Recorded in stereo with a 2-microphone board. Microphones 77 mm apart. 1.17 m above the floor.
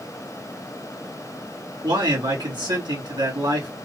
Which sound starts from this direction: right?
A man speaking, at 1.8 s.